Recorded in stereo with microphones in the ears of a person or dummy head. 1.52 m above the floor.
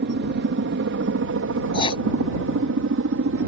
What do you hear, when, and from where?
0.0 s a helicopter: 50° right (ahead or behind); by 3.5 s 65° right (ahead or behind)
1.7 s writing: 30° left (ahead or behind)